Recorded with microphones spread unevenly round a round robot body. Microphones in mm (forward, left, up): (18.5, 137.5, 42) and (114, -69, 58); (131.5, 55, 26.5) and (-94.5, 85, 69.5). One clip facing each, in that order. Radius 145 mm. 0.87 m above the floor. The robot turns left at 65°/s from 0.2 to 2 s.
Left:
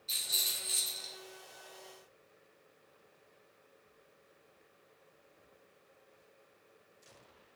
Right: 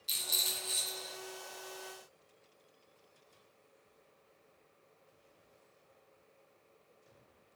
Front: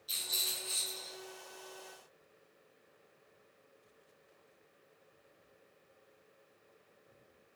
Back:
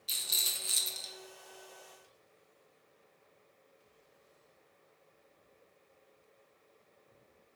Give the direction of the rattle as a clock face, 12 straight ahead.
4 o'clock.